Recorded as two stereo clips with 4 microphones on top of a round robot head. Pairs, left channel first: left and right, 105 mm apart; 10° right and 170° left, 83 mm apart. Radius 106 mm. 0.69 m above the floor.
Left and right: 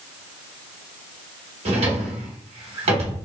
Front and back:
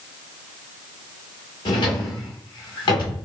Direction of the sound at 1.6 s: 50° right.